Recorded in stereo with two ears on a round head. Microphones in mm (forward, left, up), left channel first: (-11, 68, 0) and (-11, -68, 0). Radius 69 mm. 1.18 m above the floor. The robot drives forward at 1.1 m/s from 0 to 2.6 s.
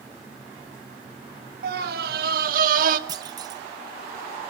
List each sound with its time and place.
1.6 s a scream: 60° right (ahead or behind), 1.7 m
3.1 s a clunk: 25° right (ahead or behind), 1.2 m